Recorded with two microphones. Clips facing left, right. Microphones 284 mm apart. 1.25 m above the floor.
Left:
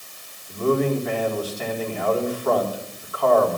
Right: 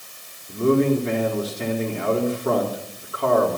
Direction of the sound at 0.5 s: 25° right (ahead or behind).